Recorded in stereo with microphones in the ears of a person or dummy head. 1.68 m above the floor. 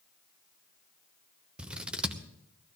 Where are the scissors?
5° right (ahead or behind), 1.1 m.